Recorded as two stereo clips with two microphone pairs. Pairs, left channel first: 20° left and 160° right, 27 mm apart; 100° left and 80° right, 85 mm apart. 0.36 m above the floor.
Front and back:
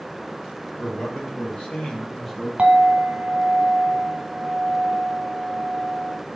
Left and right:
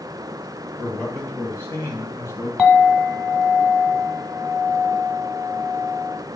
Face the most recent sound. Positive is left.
turn(degrees=170)